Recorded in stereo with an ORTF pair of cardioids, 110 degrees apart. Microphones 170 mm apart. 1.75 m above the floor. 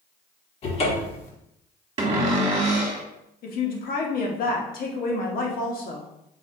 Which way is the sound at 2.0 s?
35° right.